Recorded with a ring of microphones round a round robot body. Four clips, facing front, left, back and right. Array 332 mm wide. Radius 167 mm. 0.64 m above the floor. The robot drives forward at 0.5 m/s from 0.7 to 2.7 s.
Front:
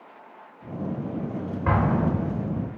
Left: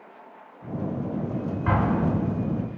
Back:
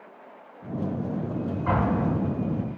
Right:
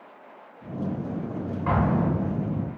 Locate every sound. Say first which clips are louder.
1.7 s an explosion: even, front 2 dB; 15° left, 1.8 m; by 2.7 s 20° left, 1.4 m